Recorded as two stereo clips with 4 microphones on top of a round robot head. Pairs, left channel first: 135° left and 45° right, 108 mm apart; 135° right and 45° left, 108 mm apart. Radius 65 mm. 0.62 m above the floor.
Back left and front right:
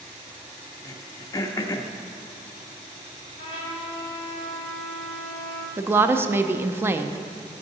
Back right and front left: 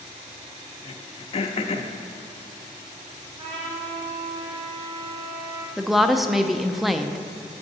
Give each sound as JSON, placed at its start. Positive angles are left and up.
{"t": 0.8, "sound": "throat clearing", "azimuth_deg": -165, "distance_m": 0.6}
{"t": 3.4, "sound": "a trumpet", "azimuth_deg": 85, "distance_m": 1.9}
{"t": 5.8, "sound": "a woman speaking", "azimuth_deg": -40, "distance_m": 0.5}